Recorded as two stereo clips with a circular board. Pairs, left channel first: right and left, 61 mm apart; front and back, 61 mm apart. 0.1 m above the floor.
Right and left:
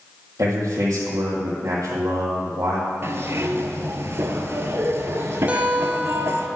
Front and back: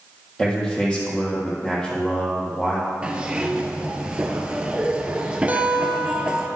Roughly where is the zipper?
Behind left.